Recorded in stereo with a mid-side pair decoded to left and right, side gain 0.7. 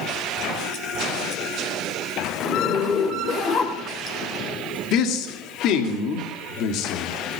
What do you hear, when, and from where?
2.4 s a zipper: 35° left, 2.5 m
4.9 s a man speaking: 60° left, 1.9 m